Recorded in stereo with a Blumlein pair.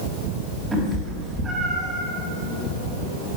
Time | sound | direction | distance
0.7 | a cat meowing | 10° right | 5.5 m